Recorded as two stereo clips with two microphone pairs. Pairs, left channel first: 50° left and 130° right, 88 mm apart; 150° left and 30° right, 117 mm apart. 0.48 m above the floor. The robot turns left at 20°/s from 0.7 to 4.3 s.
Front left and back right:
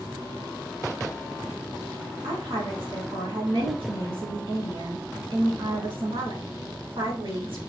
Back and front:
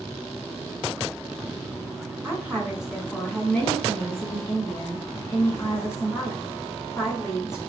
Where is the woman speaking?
105° right, 4 m; by 7.6 s 145° right, 4 m.